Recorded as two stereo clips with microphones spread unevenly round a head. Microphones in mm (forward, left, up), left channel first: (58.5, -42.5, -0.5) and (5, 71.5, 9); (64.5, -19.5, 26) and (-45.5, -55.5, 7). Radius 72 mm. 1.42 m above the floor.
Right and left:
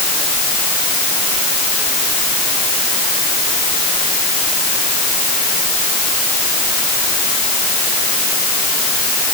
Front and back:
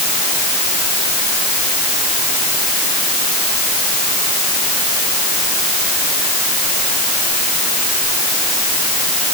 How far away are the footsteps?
No footsteps in this recording.